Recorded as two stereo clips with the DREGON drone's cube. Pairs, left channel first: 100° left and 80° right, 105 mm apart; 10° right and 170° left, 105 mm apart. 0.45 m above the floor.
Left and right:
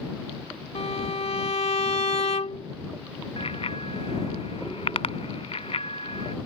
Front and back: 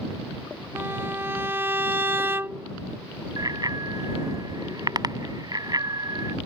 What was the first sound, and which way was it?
A violin, 105° left.